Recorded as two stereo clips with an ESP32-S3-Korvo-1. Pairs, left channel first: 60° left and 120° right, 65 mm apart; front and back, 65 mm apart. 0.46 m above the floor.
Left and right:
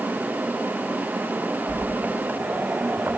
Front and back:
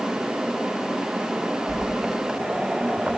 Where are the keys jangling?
65° right, 3 m.